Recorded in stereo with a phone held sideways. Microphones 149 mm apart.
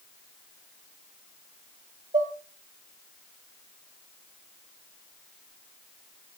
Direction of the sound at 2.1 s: 60° right (ahead or behind).